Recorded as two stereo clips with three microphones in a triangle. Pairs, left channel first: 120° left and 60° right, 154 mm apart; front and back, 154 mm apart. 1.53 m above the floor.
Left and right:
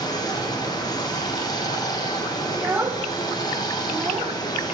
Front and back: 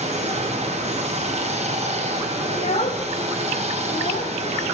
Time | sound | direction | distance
0.0 | running water | 170° left | 0.8 m
2.5 | a child speaking | 15° left | 0.6 m